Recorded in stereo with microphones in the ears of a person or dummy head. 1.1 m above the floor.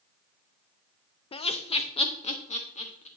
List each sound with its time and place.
1.3 s laughter: 30° left (ahead or behind), 0.6 m; by 3.1 s 40° left (ahead or behind), 1.7 m